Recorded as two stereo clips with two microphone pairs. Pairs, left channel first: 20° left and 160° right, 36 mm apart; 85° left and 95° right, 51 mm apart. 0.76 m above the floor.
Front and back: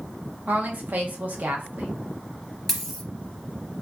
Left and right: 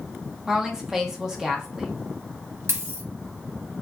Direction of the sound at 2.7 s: 70° right.